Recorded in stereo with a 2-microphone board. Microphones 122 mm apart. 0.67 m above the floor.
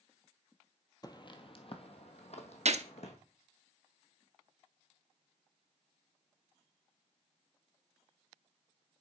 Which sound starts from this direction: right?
A gunshot, at 2.6 s.